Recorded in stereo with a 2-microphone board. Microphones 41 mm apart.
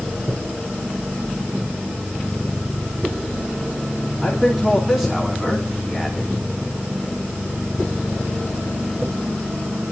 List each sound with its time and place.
4.2 s a man speaking: 10° right (ahead or behind), 3.5 m; by 6.3 s centre (ahead or behind), 1.4 m